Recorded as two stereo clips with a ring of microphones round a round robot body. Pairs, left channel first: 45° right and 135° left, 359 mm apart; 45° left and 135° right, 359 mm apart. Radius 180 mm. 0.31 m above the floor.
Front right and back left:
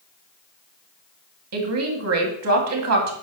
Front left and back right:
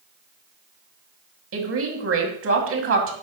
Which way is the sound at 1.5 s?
175° left.